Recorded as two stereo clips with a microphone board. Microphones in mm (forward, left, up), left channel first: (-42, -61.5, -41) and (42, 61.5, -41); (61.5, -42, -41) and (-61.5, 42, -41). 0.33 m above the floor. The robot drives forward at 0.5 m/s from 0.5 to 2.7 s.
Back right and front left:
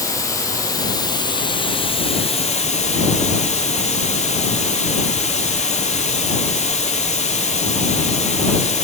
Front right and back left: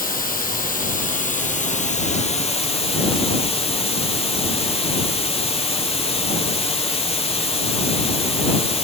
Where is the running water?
55° right, 2.5 m; by 8.8 s 85° right, 2.0 m.